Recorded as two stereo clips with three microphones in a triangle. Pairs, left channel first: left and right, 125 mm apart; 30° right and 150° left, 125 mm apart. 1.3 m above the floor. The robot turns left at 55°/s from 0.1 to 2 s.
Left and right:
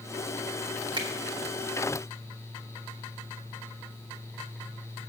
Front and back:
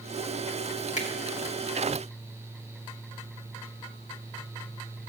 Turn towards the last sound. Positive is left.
turn(degrees=-95)